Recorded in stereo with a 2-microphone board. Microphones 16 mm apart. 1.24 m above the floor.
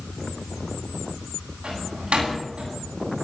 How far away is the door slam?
About 9 m.